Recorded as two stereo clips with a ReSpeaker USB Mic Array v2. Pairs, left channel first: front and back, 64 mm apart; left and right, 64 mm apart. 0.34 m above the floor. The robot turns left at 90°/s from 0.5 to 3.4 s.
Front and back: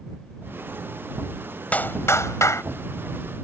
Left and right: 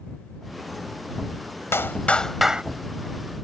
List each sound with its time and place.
1.7 s a clap: 60° left; by 2.6 s 20° right